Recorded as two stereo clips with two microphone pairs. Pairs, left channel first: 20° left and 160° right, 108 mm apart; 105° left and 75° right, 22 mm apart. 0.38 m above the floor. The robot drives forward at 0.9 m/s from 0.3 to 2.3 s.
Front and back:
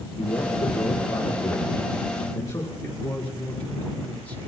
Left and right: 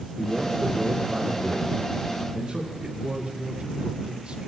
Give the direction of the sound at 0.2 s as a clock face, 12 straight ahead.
1 o'clock.